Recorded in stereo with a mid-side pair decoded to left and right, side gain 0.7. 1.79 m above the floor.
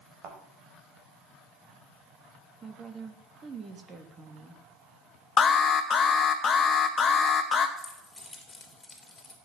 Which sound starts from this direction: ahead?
Keys jangling, at 7.8 s.